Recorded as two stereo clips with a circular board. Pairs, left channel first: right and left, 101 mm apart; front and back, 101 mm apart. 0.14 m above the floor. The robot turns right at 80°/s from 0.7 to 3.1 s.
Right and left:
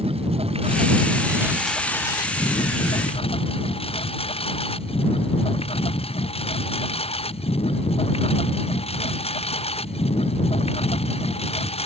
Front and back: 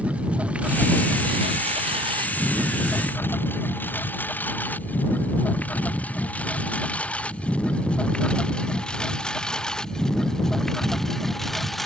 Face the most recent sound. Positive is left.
turn(degrees=-90)